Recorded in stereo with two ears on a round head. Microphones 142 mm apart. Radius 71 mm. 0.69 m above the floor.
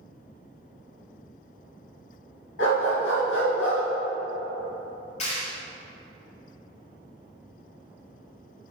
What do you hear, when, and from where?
2.6 s a dog barking: 90° left, 2.5 m
5.2 s a clap: 45° left (ahead or behind), 2 m